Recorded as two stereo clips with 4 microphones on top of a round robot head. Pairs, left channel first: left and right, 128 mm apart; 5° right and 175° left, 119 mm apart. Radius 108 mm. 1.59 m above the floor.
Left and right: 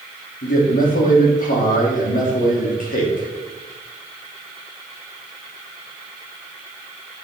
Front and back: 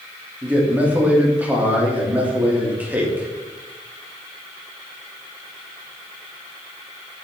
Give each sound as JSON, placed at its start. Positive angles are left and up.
{"t": 0.4, "sound": "a man speaking", "azimuth_deg": 100, "distance_m": 3.0}